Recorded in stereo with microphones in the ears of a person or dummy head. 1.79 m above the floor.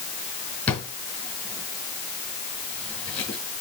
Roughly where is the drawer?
Centre.